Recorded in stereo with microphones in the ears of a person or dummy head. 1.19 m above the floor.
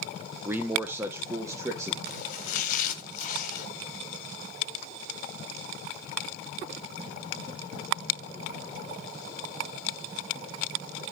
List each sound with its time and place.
0.5 s a man speaking: 15° right (ahead or behind), 0.8 m; by 1.9 s 20° right (ahead or behind), 1.5 m
2.0 s chopping: 55° left (ahead or behind), 1.7 m